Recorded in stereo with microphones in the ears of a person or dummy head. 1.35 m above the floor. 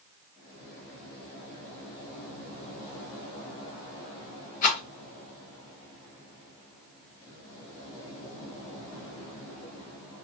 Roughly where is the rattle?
Left.